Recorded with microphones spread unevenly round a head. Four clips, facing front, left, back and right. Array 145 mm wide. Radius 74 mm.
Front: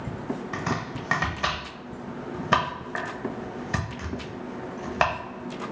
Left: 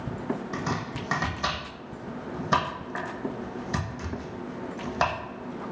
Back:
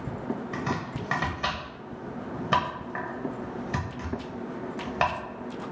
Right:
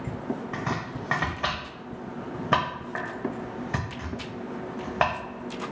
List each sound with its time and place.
0.5 s chopping: 60° right, 0.7 m